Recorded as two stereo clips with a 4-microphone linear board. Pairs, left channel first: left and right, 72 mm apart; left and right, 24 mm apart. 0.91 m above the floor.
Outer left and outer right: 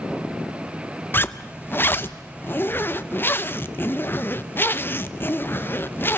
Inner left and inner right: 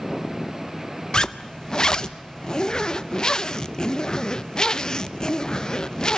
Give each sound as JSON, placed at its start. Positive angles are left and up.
{"t": 1.1, "sound": "a zipper", "side_deg": 30, "distance_m": 0.5}